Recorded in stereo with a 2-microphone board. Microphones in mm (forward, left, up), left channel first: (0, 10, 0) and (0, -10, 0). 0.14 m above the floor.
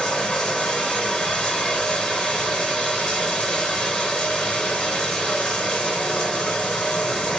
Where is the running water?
45° left (ahead or behind), 2.5 m.